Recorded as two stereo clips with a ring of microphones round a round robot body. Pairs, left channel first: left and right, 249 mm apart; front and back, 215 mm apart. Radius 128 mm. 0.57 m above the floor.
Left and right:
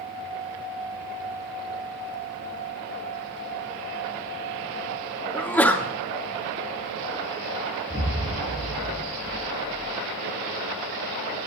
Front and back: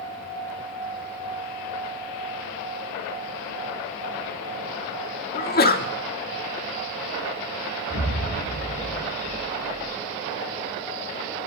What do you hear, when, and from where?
5.3 s a sneeze: 10° left, 1.3 m
7.9 s an explosion: 15° right, 1.9 m